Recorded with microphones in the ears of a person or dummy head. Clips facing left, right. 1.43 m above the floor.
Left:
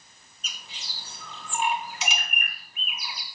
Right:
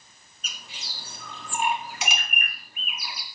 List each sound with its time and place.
0.4 s a bird: 50° right (ahead or behind), 1.7 m